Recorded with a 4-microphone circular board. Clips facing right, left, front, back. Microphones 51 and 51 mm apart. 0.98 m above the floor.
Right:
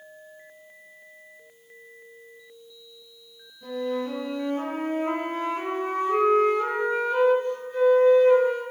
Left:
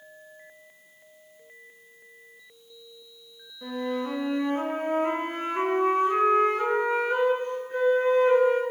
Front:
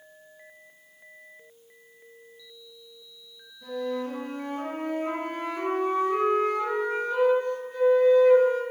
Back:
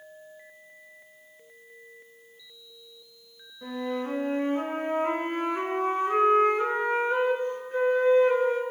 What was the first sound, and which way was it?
A flute, 135° left.